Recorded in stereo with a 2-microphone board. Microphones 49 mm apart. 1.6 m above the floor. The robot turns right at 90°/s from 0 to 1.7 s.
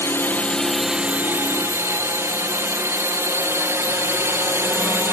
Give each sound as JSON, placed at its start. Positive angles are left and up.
{"t": 0.0, "sound": "a drone", "side_deg": 60}